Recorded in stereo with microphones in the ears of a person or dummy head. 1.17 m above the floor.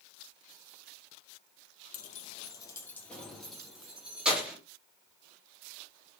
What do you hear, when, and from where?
1.9 s keys jangling: 55° left (ahead or behind), 0.6 m; by 4.6 s 10° right (ahead or behind), 1.8 m